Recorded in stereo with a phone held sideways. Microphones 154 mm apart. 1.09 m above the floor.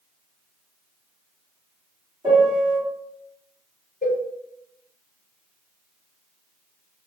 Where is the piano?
30° right (ahead or behind), 1.9 m.